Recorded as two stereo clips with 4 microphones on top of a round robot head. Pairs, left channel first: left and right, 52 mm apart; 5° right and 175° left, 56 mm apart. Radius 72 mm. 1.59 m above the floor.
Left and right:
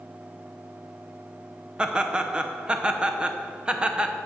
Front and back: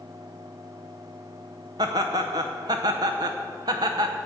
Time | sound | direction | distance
1.8 | laughter | 160° right | 0.8 m